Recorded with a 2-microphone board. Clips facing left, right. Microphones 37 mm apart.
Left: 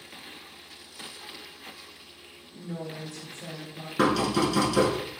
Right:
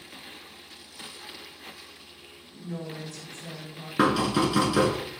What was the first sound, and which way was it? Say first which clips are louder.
A woman speaking: even; 35° left (ahead or behind).